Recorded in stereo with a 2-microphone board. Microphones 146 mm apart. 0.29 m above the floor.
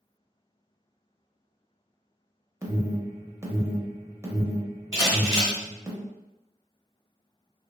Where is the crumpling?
25° right (ahead or behind), 1.2 m.